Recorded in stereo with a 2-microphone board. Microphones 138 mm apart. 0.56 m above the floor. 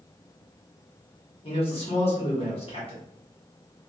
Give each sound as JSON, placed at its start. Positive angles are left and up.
{"t": 1.4, "sound": "a man speaking", "side_deg": 40, "distance_m": 1.1}